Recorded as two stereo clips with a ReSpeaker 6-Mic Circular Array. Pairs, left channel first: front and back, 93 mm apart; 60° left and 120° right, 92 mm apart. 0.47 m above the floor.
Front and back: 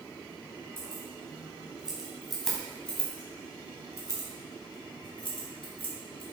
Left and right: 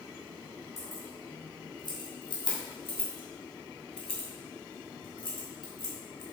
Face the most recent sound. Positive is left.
turn(degrees=20)